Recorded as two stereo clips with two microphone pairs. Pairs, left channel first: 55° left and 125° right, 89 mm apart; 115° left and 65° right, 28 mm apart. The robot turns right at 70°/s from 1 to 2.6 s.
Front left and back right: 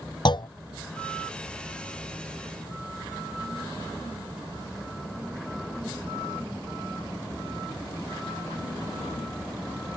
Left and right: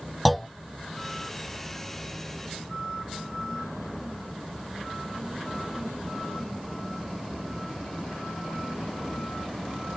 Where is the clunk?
25° left.